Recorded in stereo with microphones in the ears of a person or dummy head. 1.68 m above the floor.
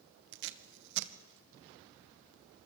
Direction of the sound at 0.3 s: 60° right (ahead or behind).